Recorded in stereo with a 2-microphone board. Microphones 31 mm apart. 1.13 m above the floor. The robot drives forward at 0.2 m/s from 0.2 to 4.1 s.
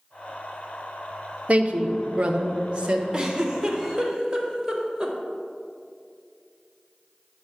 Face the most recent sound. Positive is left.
turn(degrees=-15)  # may be behind; listen again after turning